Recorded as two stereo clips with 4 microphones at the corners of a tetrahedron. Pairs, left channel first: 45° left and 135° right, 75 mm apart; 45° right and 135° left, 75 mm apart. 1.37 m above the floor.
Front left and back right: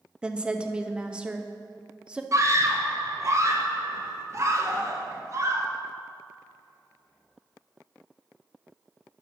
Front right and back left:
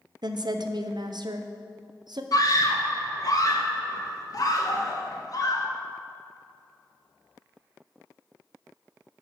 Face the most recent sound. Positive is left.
turn(degrees=-85)